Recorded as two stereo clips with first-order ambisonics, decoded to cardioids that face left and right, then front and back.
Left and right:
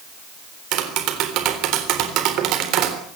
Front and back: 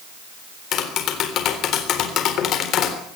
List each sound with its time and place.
0.7 s tapping: 50° right, 3.5 m